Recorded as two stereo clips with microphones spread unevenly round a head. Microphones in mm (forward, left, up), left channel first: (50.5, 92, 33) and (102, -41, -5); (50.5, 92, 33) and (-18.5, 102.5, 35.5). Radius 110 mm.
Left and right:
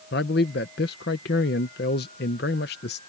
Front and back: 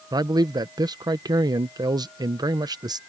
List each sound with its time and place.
0.1 s a man speaking: 140° left